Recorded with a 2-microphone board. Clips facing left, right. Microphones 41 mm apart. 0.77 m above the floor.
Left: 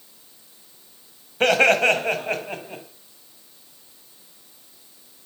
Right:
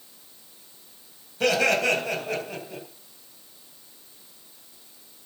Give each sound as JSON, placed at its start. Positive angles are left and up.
{"t": 1.4, "sound": "laughter", "side_deg": 45, "distance_m": 4.0}